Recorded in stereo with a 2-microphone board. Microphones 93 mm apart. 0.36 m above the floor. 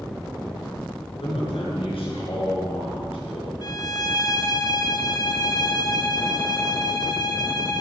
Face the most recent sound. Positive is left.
turn(degrees=50)  # may be behind; listen again after turning